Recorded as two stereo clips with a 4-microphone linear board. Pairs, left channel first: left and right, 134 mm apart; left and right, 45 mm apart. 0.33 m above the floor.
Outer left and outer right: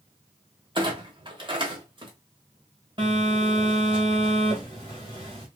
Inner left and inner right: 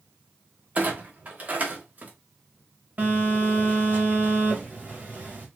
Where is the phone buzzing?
35° right (ahead or behind), 1.6 m.